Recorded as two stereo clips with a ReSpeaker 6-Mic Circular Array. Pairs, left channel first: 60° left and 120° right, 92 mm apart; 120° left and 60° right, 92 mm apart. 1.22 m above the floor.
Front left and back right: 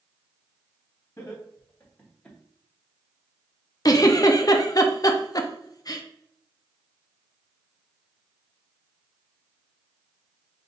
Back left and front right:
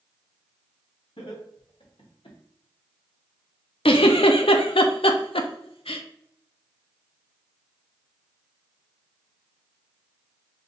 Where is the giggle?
110° left, 0.5 m.